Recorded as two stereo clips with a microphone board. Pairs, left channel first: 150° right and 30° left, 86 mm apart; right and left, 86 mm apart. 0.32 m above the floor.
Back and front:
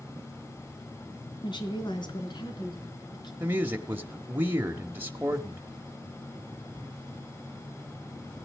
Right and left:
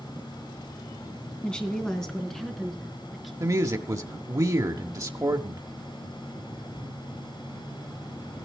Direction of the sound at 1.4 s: 170° right.